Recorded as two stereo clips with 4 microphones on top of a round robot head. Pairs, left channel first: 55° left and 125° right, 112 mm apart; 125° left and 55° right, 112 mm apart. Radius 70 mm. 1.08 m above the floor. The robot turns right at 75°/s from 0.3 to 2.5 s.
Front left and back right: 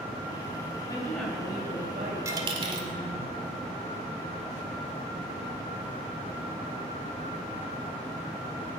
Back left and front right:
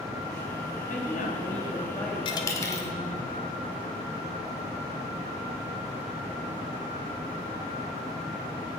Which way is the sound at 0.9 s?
115° left.